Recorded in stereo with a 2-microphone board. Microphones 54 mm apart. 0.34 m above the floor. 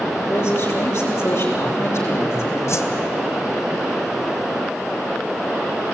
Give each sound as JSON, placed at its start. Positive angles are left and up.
{"t": 0.3, "sound": "a man speaking", "side_deg": 55, "distance_m": 7.0}
{"t": 2.7, "sound": "a whoosh", "side_deg": 60, "distance_m": 2.0}